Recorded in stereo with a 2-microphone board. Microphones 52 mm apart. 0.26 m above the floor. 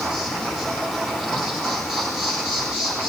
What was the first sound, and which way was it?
An insect, 10° right (ahead or behind).